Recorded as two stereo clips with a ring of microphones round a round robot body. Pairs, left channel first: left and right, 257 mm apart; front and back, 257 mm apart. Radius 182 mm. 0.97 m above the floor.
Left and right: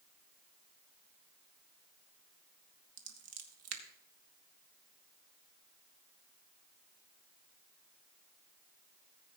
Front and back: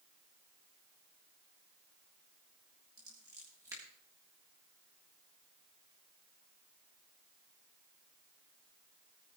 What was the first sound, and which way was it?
Scissors, 100° right.